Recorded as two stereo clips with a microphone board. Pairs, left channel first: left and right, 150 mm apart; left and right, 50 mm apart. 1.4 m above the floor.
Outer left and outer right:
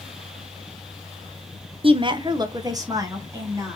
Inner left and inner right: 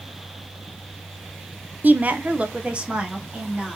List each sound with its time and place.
1.8 s a woman speaking: 35° right (ahead or behind), 0.6 m; by 3.8 s 20° right (ahead or behind), 1.8 m